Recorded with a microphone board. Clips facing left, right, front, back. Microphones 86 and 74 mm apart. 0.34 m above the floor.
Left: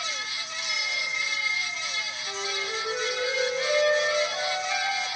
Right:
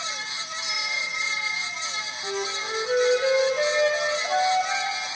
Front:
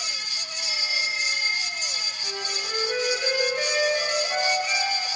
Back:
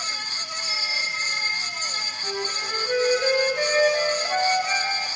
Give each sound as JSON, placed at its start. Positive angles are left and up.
{"t": 0.6, "sound": "a bicycle bell", "azimuth_deg": -10, "distance_m": 7.5}
{"t": 2.2, "sound": "a flute", "azimuth_deg": -110, "distance_m": 9.5}